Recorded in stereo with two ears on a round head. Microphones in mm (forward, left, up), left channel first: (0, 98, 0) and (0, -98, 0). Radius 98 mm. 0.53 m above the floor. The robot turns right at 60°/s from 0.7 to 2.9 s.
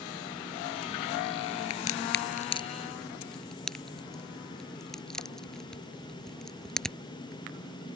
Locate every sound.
1.7 s a crack: 75° left (ahead or behind); by 7.0 s centre (ahead or behind)